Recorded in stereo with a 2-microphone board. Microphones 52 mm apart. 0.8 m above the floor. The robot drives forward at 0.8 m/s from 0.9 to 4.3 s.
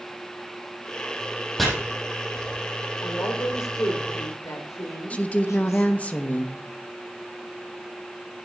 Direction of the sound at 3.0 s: 80° left.